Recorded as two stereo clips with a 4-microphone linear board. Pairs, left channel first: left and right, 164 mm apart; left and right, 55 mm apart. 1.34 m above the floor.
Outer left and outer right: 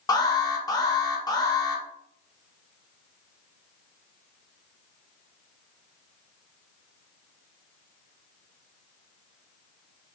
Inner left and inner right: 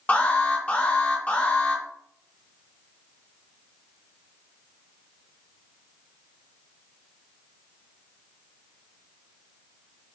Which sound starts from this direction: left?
An alarm, at 0.1 s.